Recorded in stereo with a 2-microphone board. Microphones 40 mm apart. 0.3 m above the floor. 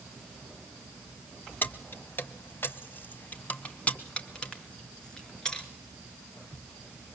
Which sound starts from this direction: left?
Keys jangling, at 1.6 s.